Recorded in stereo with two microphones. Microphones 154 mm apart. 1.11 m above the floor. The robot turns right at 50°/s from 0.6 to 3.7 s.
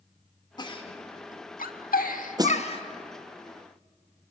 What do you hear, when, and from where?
0.6 s a giggle: 25° left (ahead or behind), 1.3 m; by 2.8 s 35° left (ahead or behind), 1.3 m
2.4 s a snare drum: 25° right (ahead or behind), 0.6 m; by 2.6 s 20° right (ahead or behind), 0.6 m